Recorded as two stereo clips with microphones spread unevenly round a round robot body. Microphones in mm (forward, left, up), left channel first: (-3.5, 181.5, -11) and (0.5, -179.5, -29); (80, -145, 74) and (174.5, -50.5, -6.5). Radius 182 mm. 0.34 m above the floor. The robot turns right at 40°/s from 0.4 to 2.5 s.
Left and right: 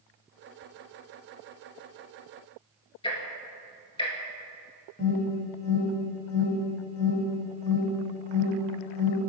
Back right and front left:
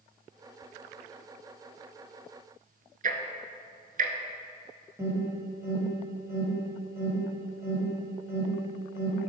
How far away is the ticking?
About 1.1 m.